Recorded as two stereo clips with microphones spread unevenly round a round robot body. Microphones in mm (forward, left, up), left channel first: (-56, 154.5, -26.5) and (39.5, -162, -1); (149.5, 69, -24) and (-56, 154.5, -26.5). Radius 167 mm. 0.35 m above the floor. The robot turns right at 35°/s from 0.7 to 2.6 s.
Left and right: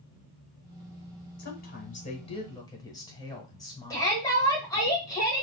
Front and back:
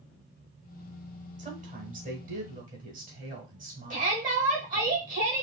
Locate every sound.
1.4 s a woman speaking: 130° left, 1.1 m; by 4.9 s 170° left, 1.1 m
3.9 s a shout: 175° left, 1.3 m